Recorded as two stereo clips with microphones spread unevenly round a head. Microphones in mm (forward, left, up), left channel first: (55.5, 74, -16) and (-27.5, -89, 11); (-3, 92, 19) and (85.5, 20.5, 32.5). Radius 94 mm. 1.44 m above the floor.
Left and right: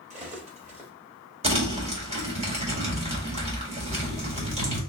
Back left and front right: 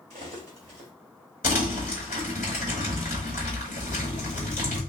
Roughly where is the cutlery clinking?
Right.